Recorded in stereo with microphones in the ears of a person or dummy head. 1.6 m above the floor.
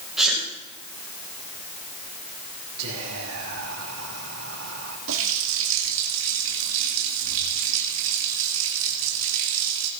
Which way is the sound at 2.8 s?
85° right.